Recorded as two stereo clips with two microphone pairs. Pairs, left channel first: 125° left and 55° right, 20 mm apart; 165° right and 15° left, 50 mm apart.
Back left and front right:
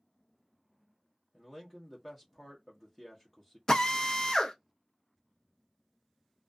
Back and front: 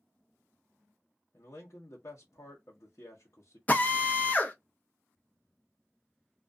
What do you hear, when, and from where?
1.3 s a man speaking: 160° right, 0.8 m
3.7 s a drill: 155° left, 0.8 m